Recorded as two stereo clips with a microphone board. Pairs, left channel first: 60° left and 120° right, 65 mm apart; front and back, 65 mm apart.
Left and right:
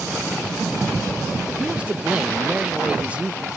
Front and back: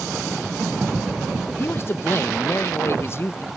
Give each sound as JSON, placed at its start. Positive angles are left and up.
{"t": 1.6, "sound": "a man speaking", "azimuth_deg": -50, "distance_m": 0.9}